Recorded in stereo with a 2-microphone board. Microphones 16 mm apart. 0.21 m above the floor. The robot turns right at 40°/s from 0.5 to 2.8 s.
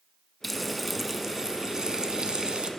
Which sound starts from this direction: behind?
Frying, at 0.4 s.